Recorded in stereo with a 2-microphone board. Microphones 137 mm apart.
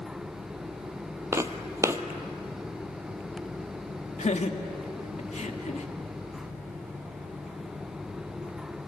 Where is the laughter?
60° left (ahead or behind), 1.8 m.